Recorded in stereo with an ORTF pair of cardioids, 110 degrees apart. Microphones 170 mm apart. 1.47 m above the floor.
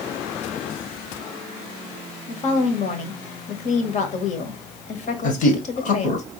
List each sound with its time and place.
2.3 s a woman speaking: 45° left, 1.5 m
5.2 s a man speaking: 50° left, 1.6 m